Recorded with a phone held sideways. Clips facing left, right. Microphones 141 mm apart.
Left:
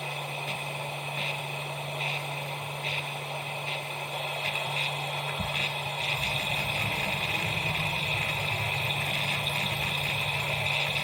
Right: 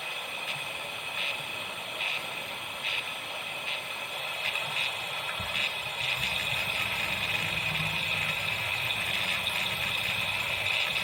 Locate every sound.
0.0 s a machine running: 35° left (ahead or behind), 0.8 m